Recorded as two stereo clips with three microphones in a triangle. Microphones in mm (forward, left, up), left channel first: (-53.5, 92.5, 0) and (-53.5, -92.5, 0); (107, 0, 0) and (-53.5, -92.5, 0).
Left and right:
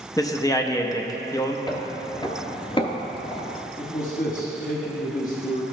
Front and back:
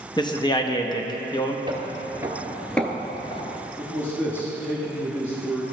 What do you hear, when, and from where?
0.2 s a man speaking: 50° left, 0.6 m
1.7 s footsteps: 155° left, 1.0 m; by 3.5 s 50° left, 0.8 m
3.8 s a man speaking: 100° left, 1.3 m